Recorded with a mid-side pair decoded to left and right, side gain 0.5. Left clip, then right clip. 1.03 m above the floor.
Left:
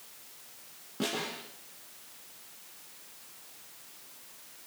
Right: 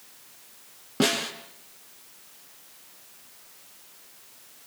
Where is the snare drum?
65° right, 5.5 m.